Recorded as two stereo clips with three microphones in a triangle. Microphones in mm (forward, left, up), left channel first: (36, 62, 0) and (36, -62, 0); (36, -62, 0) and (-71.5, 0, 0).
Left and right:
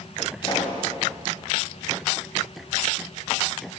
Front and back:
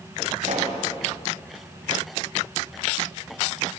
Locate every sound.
0.4 s a pop: 140° left, 2.5 m